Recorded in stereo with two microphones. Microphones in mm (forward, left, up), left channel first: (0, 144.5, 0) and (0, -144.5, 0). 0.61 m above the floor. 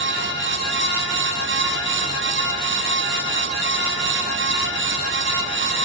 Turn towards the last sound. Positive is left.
No sound to turn to.